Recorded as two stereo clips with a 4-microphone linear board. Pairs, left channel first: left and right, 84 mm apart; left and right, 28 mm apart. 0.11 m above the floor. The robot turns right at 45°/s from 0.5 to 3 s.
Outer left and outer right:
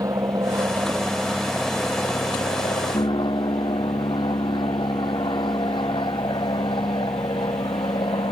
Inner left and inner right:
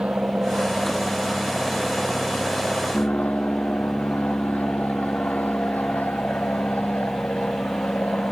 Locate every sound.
0.0 s an aircraft: 40° right (ahead or behind); by 8.3 s 70° left (ahead or behind)